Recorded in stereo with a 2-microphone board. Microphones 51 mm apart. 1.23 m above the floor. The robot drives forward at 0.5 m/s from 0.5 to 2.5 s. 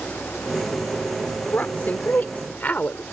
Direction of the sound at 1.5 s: 35° left (ahead or behind).